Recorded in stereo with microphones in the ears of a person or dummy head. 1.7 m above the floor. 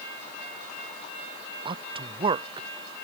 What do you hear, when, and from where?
1.6 s a man speaking: 30° right (ahead or behind)